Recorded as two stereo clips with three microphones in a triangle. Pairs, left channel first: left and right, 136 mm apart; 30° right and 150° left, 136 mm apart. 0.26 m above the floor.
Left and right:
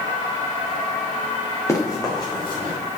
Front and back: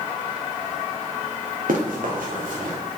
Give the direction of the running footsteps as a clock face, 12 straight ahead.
7 o'clock.